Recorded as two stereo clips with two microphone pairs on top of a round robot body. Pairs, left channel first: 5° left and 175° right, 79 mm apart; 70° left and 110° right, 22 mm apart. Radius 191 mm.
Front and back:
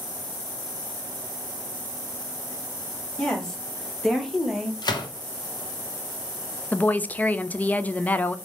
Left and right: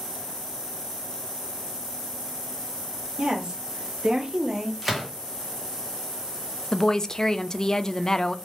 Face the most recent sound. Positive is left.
turn(degrees=30)